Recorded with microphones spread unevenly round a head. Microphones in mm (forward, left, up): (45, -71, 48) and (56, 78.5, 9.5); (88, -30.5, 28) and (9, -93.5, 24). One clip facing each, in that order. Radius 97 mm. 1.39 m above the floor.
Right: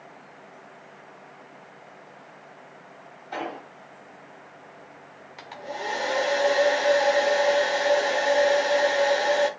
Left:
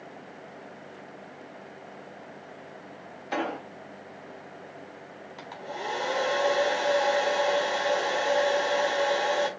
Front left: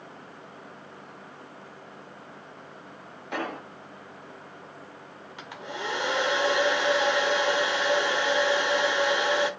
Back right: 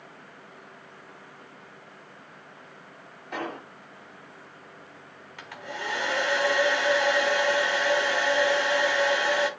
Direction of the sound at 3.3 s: 90° left.